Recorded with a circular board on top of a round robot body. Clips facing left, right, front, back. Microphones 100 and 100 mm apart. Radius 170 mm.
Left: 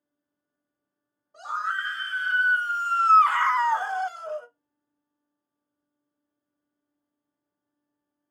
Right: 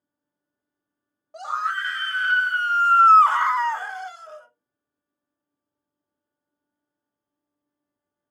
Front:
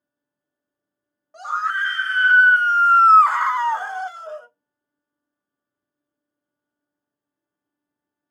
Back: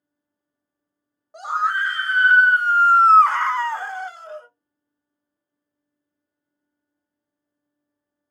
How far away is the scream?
About 1.3 m.